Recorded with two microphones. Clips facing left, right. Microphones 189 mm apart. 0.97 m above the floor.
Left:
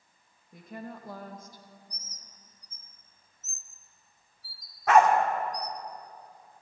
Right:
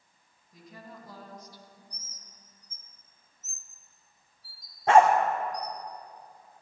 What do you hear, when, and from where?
0.5 s a woman speaking: 60° left (ahead or behind), 1.3 m; by 1.7 s 45° left (ahead or behind), 0.7 m
1.9 s a bird: 40° left (ahead or behind), 0.5 m
4.9 s a dog barking: 30° right (ahead or behind), 0.8 m